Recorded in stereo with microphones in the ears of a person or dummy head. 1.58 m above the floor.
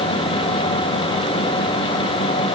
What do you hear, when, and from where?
Only background noise.